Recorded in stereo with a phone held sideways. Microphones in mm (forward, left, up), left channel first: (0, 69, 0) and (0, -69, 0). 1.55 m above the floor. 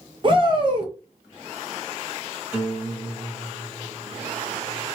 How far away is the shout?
About 1.4 m.